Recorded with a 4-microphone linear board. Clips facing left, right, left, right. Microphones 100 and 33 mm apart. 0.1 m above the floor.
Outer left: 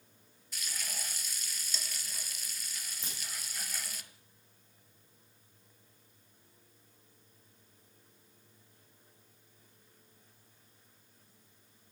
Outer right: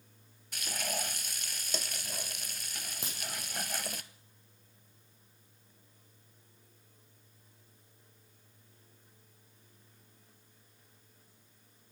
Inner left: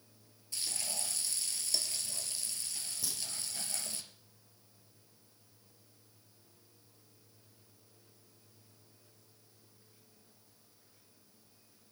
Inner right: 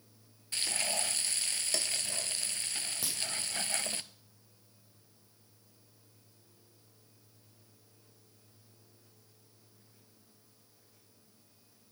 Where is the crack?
70° right (ahead or behind), 4 m.